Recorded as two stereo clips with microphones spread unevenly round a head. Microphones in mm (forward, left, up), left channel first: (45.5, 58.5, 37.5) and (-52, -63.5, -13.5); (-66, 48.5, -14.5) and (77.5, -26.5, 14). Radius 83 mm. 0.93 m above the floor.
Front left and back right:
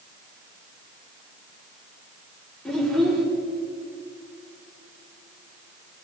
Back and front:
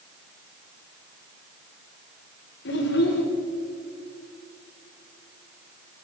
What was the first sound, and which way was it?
A child speaking, 140° left.